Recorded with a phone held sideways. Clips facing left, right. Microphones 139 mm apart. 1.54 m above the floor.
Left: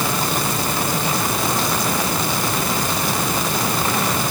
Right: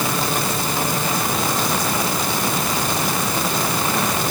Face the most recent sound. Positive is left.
No sound to turn to.